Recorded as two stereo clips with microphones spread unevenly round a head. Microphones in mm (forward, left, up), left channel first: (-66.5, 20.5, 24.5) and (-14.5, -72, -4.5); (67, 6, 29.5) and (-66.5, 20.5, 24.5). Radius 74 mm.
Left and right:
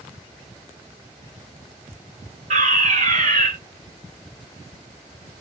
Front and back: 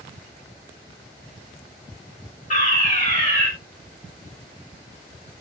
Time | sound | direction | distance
2.5 | a fire alarm | 50° right | 5 m